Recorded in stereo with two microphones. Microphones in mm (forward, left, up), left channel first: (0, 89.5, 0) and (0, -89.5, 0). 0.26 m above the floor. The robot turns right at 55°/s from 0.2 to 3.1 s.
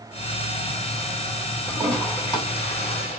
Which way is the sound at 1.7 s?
5° right (ahead or behind).